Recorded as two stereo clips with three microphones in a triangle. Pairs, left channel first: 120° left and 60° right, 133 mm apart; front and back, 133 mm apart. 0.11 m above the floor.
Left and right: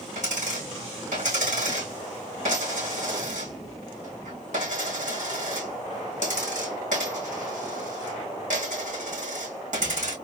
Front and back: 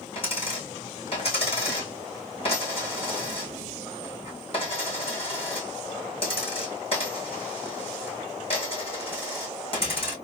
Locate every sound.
0.1 s a dropped coin: 45° right, 2 m